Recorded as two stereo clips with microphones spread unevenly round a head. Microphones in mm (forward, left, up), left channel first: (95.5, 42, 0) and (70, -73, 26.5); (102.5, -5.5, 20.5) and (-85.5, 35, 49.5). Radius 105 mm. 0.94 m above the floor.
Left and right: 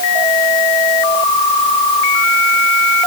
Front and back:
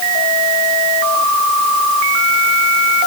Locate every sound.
Only background noise.